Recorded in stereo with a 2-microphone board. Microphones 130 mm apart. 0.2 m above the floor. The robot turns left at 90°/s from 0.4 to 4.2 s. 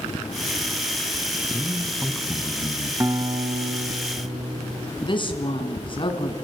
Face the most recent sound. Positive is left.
turn(degrees=40)  # may be behind; listen again after turning